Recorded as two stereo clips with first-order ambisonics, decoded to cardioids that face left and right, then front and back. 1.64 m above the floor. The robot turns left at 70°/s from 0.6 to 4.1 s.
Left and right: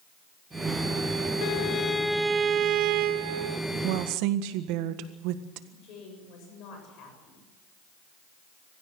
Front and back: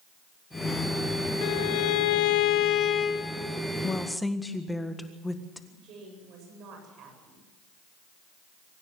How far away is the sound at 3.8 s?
About 1.6 m.